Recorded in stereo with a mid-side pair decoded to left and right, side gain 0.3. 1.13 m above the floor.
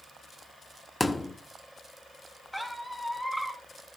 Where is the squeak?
5° left, 3 m.